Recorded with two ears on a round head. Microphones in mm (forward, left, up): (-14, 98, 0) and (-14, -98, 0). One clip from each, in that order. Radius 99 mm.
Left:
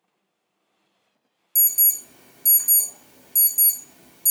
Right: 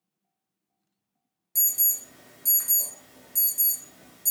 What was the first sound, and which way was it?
An alarm, 15° left (ahead or behind).